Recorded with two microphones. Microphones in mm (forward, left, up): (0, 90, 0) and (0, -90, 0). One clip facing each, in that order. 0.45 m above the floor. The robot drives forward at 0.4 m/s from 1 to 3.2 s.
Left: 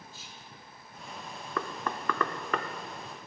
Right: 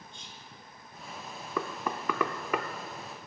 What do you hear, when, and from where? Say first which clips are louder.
0.1 s whispering: even; 5° left (ahead or behind), 1.4 m
1.6 s knocking: right 1 dB; 10° right (ahead or behind), 0.7 m